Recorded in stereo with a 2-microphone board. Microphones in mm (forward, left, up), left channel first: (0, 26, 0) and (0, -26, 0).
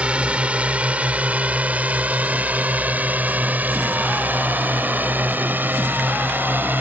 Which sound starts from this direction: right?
A drone, at 0.0 s.